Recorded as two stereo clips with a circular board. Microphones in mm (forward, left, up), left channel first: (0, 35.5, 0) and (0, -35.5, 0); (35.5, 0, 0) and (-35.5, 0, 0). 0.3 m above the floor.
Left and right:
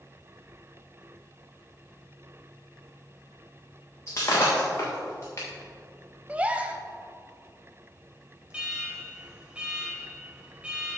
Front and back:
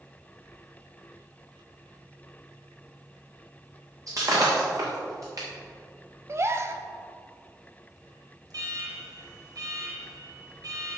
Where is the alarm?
165° right, 3 m.